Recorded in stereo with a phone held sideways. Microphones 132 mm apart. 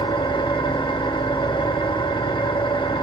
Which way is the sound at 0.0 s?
40° left (ahead or behind).